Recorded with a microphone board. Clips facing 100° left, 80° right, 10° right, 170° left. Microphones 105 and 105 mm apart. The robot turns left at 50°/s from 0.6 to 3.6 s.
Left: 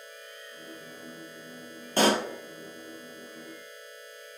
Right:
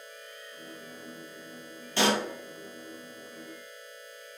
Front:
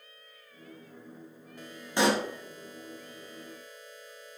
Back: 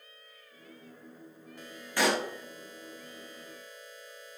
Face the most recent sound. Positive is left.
turn(degrees=-30)